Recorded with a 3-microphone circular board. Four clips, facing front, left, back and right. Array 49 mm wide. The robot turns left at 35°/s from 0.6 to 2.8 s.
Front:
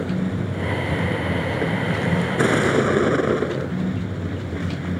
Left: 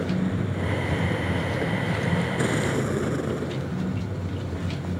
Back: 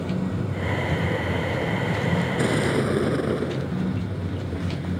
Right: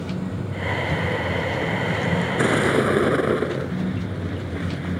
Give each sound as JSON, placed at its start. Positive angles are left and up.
{"t": 0.0, "sound": "a vehicle", "azimuth_deg": 30}